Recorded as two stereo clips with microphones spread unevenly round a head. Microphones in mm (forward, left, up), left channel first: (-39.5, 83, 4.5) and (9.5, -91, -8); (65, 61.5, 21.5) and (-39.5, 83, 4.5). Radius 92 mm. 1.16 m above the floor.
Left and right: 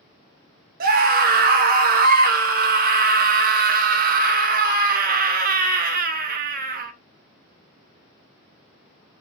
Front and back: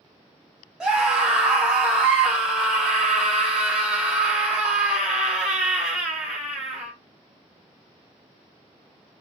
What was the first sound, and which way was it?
A scream, 110° right.